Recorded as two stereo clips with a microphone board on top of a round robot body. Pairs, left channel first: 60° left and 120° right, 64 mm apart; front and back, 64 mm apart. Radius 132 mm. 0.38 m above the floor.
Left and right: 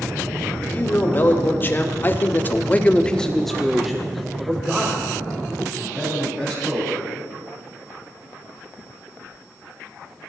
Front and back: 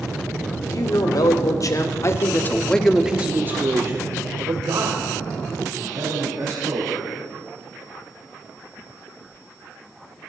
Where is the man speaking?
Straight ahead, 3 m; by 6.9 s 170° left, 5 m.